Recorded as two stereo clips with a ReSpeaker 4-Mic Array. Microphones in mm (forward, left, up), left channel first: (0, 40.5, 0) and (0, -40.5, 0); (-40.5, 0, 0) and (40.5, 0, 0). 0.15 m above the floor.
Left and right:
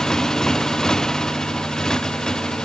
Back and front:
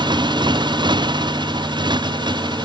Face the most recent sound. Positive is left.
turn(degrees=10)